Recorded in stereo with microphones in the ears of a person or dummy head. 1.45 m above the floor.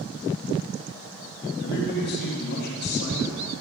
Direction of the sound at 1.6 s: 60° left (ahead or behind).